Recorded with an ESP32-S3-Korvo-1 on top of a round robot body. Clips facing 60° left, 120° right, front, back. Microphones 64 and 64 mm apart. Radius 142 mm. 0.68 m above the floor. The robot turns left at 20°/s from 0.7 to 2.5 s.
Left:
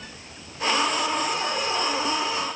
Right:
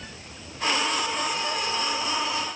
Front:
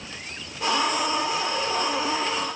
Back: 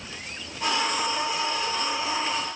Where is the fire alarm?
No fire alarm in this recording.